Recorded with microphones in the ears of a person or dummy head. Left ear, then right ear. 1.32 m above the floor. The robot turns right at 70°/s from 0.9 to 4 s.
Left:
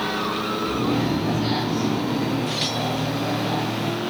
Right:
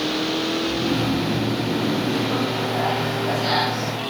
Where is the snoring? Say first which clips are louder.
Right 1 dB; 130° left, 4 m; by 2.6 s 110° right, 4 m.